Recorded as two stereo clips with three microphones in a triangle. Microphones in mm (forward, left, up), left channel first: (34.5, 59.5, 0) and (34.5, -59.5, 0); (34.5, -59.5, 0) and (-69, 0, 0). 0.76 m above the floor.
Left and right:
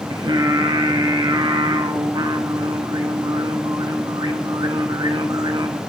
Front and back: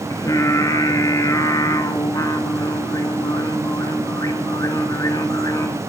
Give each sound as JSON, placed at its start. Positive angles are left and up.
{"t": 0.1, "sound": "singing", "azimuth_deg": -70, "distance_m": 1.2}